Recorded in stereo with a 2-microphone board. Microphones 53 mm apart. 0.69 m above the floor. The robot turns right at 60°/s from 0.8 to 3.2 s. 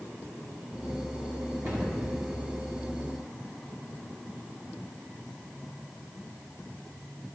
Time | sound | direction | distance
1.6 | a cupboard door | 60° right (ahead or behind) | 4 m